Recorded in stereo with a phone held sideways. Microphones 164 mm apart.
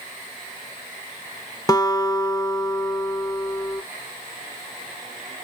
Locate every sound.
1.7 s a guitar: 25° left (ahead or behind), 0.5 m